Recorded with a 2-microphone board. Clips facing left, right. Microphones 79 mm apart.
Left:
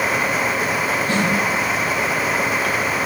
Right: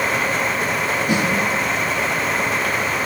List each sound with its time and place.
1.1 s a snare drum: 15° right (ahead or behind), 6 m